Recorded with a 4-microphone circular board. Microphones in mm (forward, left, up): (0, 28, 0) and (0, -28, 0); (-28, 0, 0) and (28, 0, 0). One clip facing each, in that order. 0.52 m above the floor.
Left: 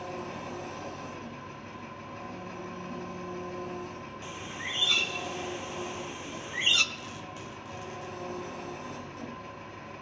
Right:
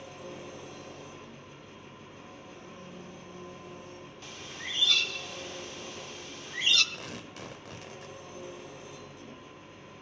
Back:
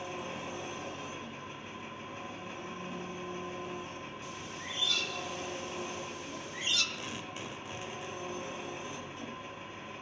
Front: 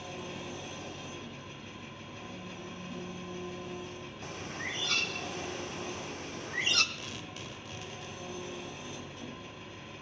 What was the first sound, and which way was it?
An engine running, 110° left.